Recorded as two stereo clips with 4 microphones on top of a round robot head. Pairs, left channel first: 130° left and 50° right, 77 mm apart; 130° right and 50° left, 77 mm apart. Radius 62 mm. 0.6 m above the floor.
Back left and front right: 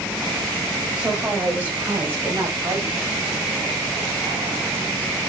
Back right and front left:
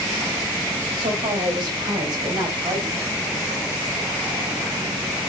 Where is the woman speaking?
30° left, 3 m; by 3.1 s 5° right, 4.5 m.